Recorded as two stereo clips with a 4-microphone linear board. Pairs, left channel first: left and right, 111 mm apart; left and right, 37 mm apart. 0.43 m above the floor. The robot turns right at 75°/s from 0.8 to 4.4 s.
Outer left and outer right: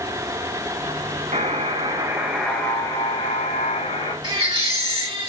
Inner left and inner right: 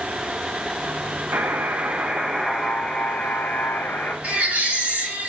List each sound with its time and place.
1.3 s a buzzer: 80° right, 1.6 m; by 4.1 s 130° left, 1.6 m
4.2 s a baby crying: 40° right (ahead or behind), 3.5 m; by 5.3 s 50° right (ahead or behind), 3.5 m